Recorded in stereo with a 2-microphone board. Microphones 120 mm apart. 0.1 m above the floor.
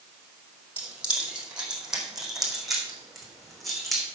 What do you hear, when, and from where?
0.8 s keys jangling: 15° right (ahead or behind), 3 m; by 4.0 s centre (ahead or behind), 5.5 m